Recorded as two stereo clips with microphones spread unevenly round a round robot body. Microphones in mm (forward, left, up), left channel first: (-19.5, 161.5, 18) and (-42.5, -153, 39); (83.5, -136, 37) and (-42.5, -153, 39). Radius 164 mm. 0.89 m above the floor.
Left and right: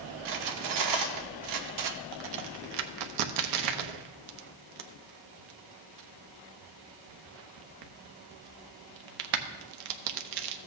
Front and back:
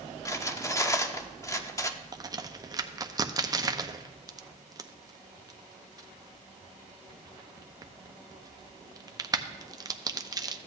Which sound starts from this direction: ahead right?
Cutlery clinking, at 0.2 s.